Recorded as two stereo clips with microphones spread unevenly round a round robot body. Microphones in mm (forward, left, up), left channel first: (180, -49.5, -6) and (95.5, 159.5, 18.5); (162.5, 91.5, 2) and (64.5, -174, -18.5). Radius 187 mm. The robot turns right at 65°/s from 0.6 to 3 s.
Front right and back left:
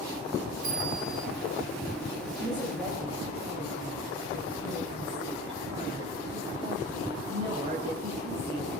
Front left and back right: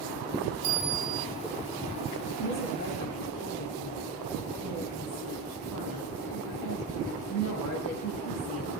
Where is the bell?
Straight behind, 0.9 m; by 1.3 s 140° right, 0.9 m.